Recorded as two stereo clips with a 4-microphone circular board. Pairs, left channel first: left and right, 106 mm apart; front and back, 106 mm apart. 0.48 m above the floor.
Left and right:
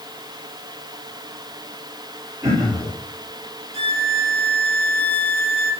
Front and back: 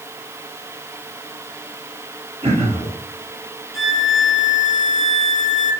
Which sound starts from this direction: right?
A violin, at 3.7 s.